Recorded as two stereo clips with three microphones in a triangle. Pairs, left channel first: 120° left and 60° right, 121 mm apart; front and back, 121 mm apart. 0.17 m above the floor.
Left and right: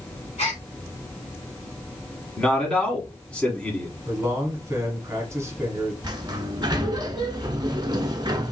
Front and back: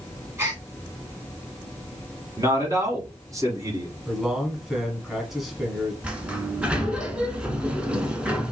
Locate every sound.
0.4 s a gasp: 110° left, 2.5 m
2.4 s a man speaking: 170° right, 1.2 m
4.1 s a man speaking: 95° right, 1.1 m
6.0 s a sliding door: 100° right, 0.6 m